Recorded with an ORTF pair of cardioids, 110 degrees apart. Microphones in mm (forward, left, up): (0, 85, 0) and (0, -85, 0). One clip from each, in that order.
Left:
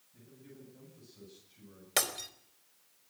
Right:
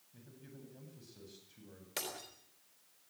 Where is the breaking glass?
55° left, 3.5 m.